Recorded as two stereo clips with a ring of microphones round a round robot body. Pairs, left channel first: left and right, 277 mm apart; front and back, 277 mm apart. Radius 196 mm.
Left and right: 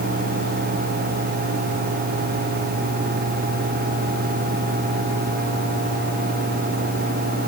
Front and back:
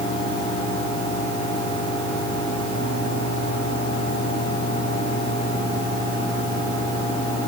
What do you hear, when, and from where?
Only background noise.